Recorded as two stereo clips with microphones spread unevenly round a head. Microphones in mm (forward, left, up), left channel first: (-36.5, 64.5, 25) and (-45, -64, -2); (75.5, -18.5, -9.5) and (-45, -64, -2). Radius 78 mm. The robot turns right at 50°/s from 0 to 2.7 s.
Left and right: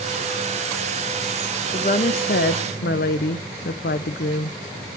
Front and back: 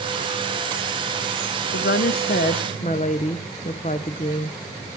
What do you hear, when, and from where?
1.7 s a woman speaking: 25° left, 0.7 m; by 4.9 s 75° left, 0.7 m